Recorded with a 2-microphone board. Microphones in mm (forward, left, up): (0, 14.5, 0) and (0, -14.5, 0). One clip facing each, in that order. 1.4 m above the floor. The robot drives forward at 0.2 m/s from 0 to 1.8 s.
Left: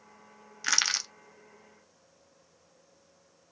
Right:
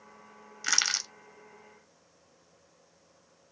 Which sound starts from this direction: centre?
Crushing, at 0.6 s.